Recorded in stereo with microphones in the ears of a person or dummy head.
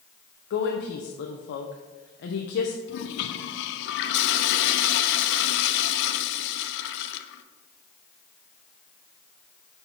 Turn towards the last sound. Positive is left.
turn(degrees=65)  # may be behind; listen again after turning